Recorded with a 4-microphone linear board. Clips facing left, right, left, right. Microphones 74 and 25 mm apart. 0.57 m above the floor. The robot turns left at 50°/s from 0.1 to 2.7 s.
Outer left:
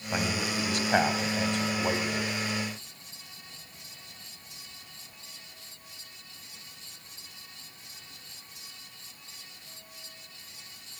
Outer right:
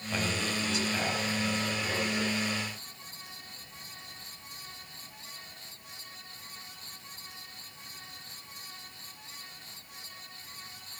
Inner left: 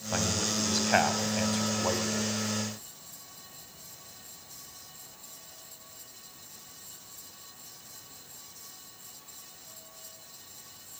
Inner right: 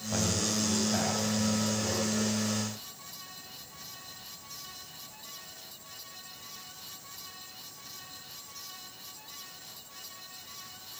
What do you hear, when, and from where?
0.1 s a man speaking: 155° left, 3.5 m; by 2.3 s 45° left, 3.5 m